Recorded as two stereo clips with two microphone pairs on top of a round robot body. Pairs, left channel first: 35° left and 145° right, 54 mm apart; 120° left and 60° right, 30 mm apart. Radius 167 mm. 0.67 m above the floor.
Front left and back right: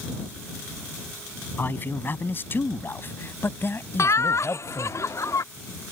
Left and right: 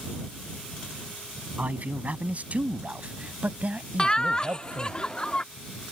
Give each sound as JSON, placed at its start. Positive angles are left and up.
{"t": 1.6, "sound": "a man speaking", "azimuth_deg": -15}
{"t": 4.0, "sound": "laughter", "azimuth_deg": 60}